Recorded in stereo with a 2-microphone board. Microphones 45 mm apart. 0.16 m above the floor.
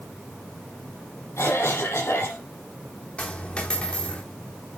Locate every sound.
1.4 s a cough: 75° left (ahead or behind), 5.5 m
3.2 s a dropped coin: 25° left (ahead or behind), 4 m